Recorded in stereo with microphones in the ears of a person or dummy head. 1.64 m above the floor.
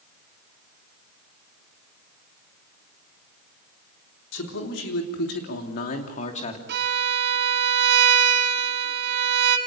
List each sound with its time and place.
4.3 s a man speaking: 85° left, 3.5 m; by 6.6 s 35° left (ahead or behind), 3 m
6.7 s a violin: 65° right (ahead or behind), 1.9 m